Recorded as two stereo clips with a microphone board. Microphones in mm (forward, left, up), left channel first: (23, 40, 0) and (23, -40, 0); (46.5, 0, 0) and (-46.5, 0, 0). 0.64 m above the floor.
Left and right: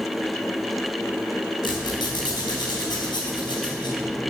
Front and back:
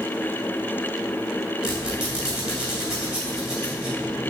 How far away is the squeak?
About 3 m.